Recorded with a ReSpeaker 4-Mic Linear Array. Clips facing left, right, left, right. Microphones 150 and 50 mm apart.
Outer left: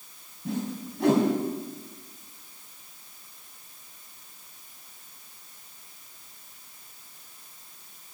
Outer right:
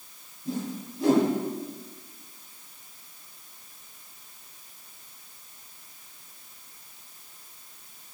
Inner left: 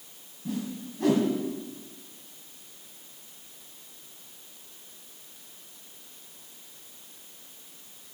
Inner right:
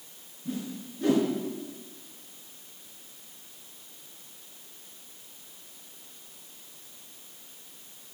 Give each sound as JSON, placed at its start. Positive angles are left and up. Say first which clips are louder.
{"t": 0.5, "sound": "a whoosh", "louder": "outer left 1 dB, inner left 2 dB", "side_deg": 70, "distance_m": 3.0}